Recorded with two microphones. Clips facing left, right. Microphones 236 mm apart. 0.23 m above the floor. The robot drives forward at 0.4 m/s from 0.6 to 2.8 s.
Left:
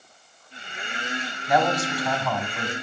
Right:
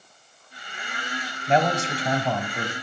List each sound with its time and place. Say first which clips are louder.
1.5 s a man speaking: even; 30° right (ahead or behind), 1.0 m; by 2.7 s 25° right (ahead or behind), 1.2 m